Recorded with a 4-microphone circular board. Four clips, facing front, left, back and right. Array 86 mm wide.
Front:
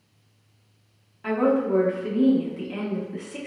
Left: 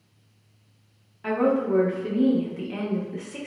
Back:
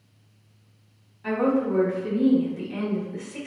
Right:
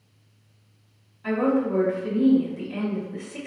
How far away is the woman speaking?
About 0.8 m.